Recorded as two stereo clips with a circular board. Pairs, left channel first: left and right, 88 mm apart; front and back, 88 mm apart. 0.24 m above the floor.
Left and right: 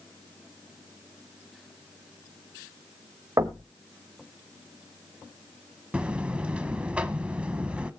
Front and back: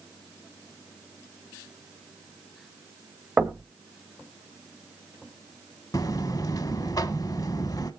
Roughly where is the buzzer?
Ahead.